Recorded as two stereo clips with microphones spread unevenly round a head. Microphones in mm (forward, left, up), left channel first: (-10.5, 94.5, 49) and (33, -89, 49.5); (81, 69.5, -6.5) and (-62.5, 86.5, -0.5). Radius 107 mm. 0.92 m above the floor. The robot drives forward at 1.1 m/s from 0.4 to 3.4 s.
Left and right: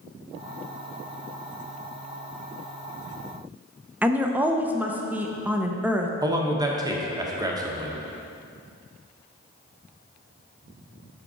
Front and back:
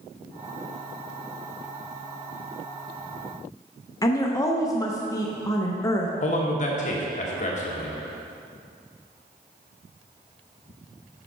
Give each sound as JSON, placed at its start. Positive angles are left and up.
{"t": 4.0, "sound": "a woman speaking", "azimuth_deg": -10, "distance_m": 0.7}
{"t": 6.2, "sound": "a man speaking", "azimuth_deg": -10, "distance_m": 1.1}